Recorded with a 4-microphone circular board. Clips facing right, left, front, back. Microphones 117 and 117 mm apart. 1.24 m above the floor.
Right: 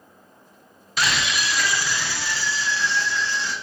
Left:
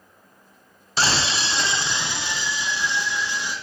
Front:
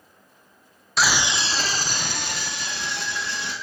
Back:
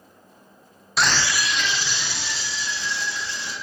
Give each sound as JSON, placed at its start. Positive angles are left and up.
{"t": 1.0, "sound": "a scream", "azimuth_deg": 90, "distance_m": 0.6}